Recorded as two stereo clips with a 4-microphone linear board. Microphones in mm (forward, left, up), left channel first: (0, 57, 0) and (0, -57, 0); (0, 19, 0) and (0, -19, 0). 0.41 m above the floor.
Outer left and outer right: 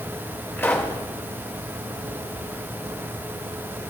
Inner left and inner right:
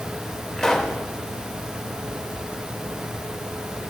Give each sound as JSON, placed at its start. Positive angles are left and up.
{"t": 0.6, "sound": "a pop", "side_deg": 20, "distance_m": 1.6}